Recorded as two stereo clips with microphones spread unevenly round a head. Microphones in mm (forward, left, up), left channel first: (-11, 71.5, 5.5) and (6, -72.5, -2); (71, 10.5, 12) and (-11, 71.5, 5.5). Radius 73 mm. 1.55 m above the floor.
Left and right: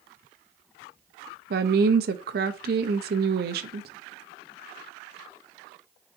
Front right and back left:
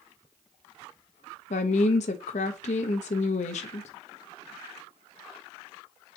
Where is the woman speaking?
65° right, 0.6 m.